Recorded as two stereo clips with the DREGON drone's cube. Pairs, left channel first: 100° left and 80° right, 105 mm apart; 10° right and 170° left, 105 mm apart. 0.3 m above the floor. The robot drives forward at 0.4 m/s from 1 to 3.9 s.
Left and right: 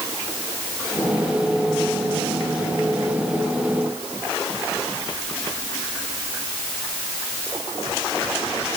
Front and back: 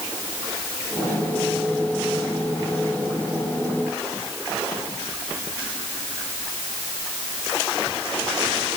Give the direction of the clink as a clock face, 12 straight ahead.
No clink in this recording.